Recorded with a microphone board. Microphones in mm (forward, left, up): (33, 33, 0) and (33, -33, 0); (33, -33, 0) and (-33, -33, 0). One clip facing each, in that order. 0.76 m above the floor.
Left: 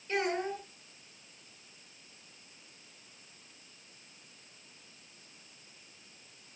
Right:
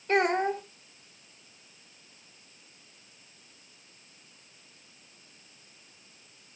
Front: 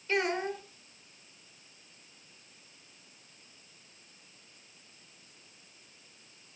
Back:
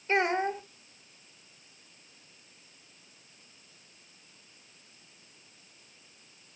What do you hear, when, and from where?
0.1 s a child speaking: 120° right, 1.9 m